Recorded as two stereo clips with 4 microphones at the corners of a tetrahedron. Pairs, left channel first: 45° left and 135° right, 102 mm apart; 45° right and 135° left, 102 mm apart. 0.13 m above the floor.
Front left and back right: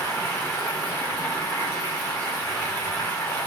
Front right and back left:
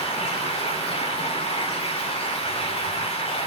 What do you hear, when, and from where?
0.0 s running water: 25° right, 9 m